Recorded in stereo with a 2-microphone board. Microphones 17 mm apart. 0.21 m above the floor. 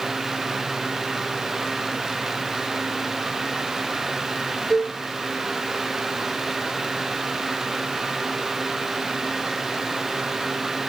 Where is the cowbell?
45° left (ahead or behind), 2.5 m.